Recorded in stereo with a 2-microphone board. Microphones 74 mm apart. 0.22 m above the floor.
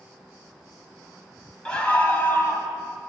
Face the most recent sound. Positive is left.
turn(degrees=35)  # may be behind; listen again after turning